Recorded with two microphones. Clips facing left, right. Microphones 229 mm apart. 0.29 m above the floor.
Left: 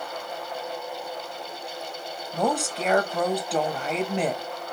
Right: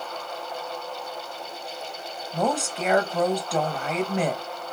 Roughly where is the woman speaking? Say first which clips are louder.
Even; centre.